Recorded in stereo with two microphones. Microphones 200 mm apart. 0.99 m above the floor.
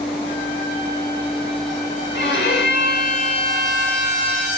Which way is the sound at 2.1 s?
60° left (ahead or behind).